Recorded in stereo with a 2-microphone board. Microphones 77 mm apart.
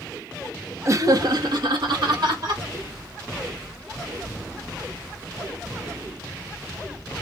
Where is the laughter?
40° right (ahead or behind), 0.6 m; by 2.6 s 70° right (ahead or behind), 1.5 m.